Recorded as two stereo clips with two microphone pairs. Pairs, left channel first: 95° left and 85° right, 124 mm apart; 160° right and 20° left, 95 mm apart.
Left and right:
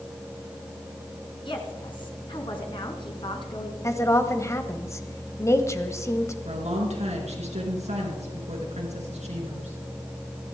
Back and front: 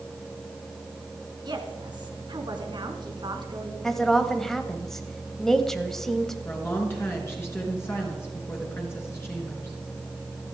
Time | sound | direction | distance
1.4 | a woman speaking | 55° left | 3 m
3.8 | a woman speaking | 120° left | 1.4 m
6.5 | a woman speaking | 95° right | 4 m